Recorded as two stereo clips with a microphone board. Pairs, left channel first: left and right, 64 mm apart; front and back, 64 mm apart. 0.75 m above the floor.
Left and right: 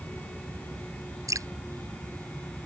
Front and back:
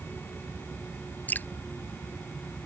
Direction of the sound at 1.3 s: 65° right.